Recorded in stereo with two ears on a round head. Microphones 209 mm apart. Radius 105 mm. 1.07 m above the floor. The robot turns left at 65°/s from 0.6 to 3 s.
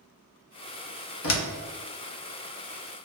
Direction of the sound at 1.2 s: 60° left (ahead or behind).